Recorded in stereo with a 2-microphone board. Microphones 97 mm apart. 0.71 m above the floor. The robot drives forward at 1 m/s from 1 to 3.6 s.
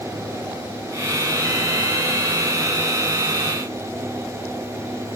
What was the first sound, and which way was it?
Only background noise.